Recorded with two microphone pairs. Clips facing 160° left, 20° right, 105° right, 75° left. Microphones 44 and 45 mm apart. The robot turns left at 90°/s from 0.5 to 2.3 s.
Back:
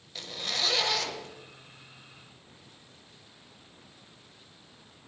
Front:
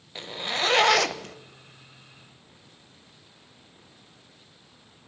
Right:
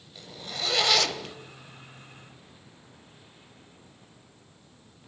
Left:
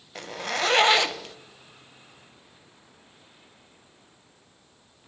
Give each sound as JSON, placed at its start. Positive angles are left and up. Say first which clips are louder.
{"t": 0.1, "sound": "a zipper", "louder": "front 4 dB, left 9 dB", "azimuth_deg": 45, "distance_m": 0.5}